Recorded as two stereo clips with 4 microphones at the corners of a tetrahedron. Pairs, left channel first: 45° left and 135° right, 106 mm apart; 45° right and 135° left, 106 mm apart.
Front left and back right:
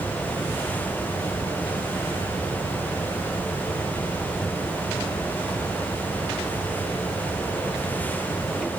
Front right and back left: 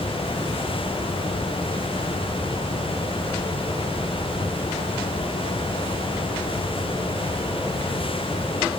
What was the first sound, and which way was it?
Only background noise.